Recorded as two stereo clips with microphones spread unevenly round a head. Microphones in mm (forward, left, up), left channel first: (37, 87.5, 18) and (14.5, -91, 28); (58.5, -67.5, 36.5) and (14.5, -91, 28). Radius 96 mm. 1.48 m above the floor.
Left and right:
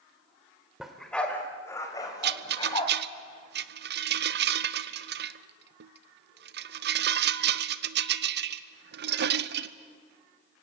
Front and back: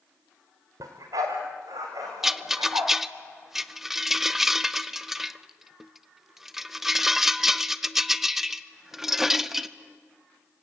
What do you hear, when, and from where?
0.8 s a dog barking: straight behind, 1.9 m; by 2.9 s 150° left, 3.5 m
2.2 s a rattle: 75° right, 0.7 m